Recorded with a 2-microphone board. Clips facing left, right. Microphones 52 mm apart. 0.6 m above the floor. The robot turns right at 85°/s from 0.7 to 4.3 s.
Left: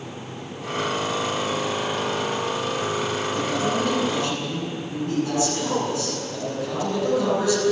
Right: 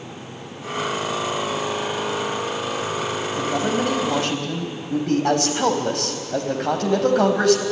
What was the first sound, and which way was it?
A man speaking, 165° right.